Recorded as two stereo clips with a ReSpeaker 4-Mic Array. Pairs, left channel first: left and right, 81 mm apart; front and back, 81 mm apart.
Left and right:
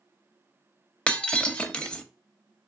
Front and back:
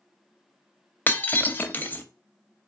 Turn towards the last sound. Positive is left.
turn(degrees=30)